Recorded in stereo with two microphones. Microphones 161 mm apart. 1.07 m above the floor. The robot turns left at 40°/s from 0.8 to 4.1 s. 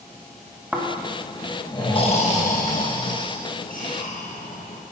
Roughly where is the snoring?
Centre.